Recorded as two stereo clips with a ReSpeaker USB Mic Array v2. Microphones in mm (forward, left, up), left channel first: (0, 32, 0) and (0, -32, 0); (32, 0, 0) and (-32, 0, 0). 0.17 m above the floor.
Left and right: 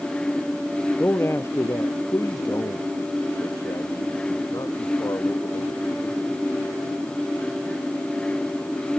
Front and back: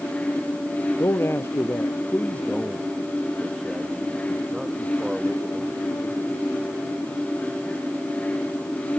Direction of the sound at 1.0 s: 40° left.